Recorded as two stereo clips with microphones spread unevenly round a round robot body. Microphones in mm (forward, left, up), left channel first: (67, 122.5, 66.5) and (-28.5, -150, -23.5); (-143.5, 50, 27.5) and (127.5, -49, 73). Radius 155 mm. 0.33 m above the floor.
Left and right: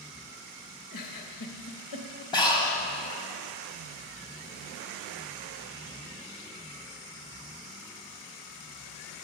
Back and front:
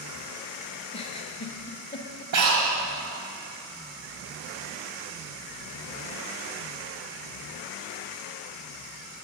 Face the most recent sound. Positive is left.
turn(degrees=-10)